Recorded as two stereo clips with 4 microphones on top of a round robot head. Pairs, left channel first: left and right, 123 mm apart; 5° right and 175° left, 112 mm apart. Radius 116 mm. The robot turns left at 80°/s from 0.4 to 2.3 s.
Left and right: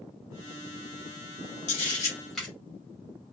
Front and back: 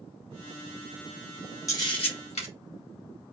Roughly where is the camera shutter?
Ahead left.